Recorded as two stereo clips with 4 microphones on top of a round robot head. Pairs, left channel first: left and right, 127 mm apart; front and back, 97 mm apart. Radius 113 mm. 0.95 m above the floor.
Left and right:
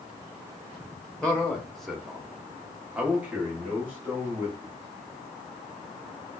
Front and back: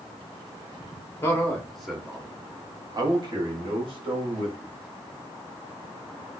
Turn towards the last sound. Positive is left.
turn(degrees=-165)